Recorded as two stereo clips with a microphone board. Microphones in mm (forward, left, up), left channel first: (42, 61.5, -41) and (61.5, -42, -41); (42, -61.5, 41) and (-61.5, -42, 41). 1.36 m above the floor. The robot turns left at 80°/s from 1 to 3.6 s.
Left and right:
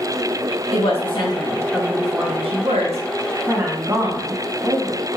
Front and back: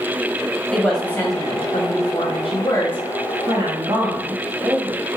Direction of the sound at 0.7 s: 75° left.